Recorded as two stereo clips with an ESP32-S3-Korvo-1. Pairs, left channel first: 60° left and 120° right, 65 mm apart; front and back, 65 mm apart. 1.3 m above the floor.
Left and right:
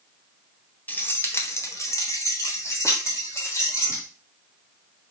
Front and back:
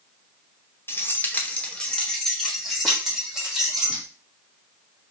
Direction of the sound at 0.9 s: 15° left.